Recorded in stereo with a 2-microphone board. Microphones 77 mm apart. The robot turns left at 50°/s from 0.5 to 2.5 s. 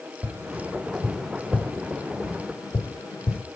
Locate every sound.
0.2 s tapping: 35° right (ahead or behind), 1.9 m; by 3.4 s 65° left (ahead or behind), 1.9 m